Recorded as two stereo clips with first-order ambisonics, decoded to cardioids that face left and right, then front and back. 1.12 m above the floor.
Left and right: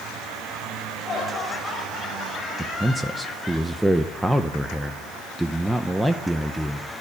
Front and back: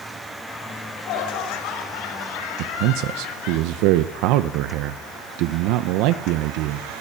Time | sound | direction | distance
0.7 | laughter | 15° left | 4.5 m
2.6 | a man speaking | 175° right | 0.6 m